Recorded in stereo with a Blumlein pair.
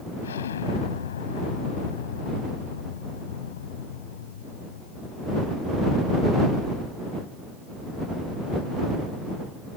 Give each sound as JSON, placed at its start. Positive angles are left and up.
{"t": 0.2, "sound": "an explosion", "azimuth_deg": 65}